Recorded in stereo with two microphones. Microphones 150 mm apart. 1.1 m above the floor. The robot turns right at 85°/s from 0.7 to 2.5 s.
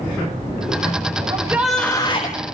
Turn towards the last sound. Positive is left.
turn(degrees=70)